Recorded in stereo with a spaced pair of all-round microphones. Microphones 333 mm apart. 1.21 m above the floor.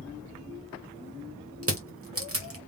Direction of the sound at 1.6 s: 40° right (ahead or behind).